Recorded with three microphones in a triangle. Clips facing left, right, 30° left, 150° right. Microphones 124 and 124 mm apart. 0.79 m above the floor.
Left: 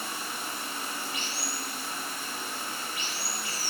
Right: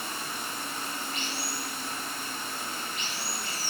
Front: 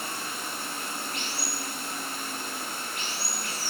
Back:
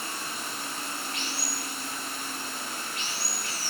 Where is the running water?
10° left, 0.8 m.